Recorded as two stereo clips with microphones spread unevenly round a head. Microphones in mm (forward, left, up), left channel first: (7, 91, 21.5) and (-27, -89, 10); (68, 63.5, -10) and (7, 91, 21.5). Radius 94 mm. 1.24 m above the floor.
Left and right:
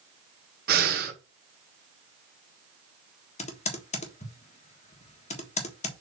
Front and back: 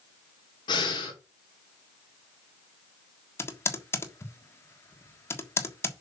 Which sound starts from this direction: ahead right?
Breathing, at 0.7 s.